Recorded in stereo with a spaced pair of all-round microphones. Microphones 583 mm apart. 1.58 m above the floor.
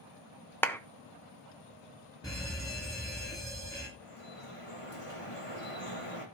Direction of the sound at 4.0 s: 65° left (ahead or behind).